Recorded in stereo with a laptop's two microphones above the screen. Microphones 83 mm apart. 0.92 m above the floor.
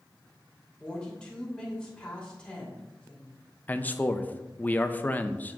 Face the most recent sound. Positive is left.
turn(degrees=20)  # may be behind; listen again after turning